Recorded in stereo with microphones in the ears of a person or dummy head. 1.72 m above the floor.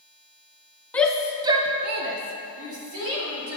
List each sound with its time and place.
0.9 s a shout: 15° left (ahead or behind), 1.4 m; by 3.6 s 75° right (ahead or behind), 3.5 m